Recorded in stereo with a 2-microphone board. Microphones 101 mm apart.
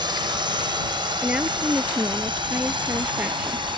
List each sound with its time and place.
0.0 s a drone: 50° right (ahead or behind)
1.2 s a woman speaking: 10° right (ahead or behind)